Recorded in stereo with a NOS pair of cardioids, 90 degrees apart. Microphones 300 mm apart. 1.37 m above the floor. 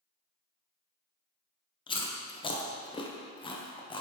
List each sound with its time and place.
1.9 s chewing: 15° left, 0.5 m